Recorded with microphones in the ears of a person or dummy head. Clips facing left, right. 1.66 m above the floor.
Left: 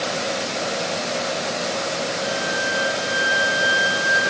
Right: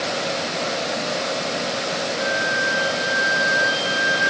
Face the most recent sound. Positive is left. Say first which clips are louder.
# right 1 dB
turn(degrees=10)  # may be behind; listen again after turning